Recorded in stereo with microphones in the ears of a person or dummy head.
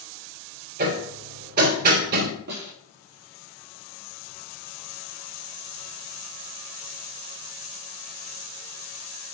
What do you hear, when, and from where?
0.8 s hammering: 55° right (ahead or behind), 2.5 m
2.5 s a snare drum: 45° right (ahead or behind), 4 m